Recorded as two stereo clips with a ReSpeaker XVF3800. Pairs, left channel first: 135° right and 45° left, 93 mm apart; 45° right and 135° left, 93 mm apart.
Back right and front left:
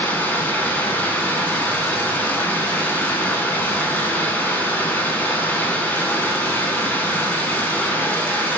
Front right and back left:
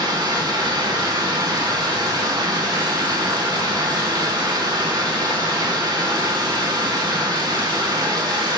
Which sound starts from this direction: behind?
Running water, at 0.0 s.